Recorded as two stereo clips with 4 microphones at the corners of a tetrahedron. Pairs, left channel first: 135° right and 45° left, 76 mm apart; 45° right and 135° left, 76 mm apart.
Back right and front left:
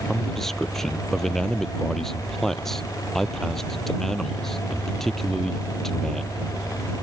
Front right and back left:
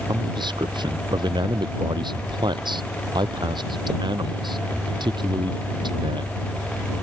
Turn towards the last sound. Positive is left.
turn(degrees=140)